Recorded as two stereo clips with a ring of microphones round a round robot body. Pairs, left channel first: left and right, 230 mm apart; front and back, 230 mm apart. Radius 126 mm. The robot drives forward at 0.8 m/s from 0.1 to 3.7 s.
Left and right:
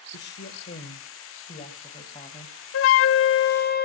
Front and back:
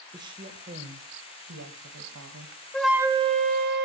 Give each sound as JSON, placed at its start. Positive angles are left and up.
{"t": 0.1, "sound": "a woman speaking", "azimuth_deg": 110, "distance_m": 1.5}
{"t": 2.7, "sound": "a flute", "azimuth_deg": 85, "distance_m": 0.9}